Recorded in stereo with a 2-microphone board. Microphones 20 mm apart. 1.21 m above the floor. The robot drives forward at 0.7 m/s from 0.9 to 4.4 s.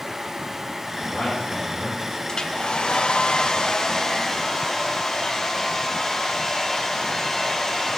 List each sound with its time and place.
1.0 s a man speaking: 75° left (ahead or behind), 5.5 m; by 2.0 s 80° left, 5.5 m
2.3 s a hair dryer: 35° left (ahead or behind), 0.8 m; by 8.0 s 20° left (ahead or behind), 1.2 m